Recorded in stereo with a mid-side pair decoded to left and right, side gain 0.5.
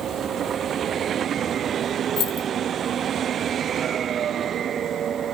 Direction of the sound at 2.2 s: 65° left.